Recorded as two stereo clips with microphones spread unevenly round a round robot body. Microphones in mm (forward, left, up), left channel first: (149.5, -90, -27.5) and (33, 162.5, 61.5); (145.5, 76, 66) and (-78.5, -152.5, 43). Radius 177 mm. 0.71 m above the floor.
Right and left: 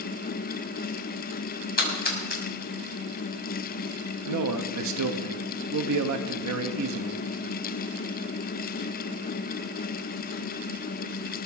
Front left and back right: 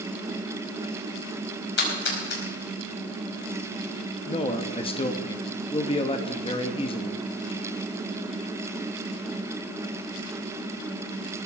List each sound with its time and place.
1.8 s a splash: 10° right, 6 m
4.3 s a man speaking: 115° left, 1.2 m